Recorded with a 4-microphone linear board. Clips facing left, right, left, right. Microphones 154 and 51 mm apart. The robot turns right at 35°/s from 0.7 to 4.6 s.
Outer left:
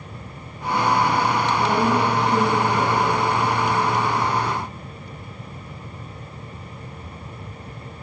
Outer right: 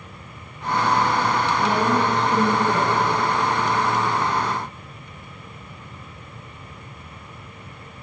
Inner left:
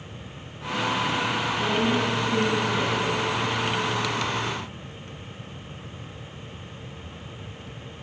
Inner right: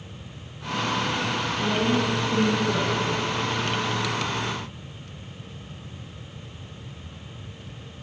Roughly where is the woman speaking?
Behind left.